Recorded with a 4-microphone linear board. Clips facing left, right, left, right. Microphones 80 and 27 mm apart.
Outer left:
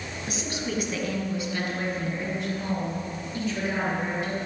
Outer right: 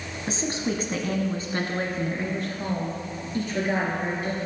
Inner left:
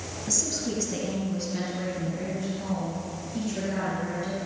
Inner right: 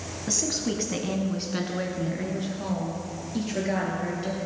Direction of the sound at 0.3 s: 30° right (ahead or behind).